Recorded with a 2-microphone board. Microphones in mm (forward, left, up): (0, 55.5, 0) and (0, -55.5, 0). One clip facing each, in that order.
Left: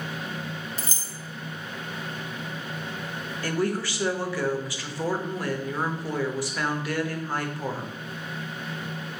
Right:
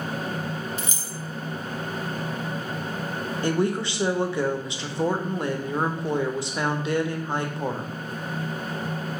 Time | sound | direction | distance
0.8 | keys jangling | 35° left (ahead or behind) | 0.5 m
3.4 | a woman speaking | 25° right (ahead or behind) | 0.8 m